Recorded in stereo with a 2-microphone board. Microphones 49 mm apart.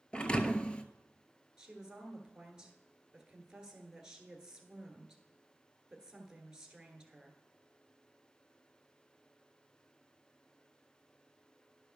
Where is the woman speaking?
15° right (ahead or behind), 1.4 m.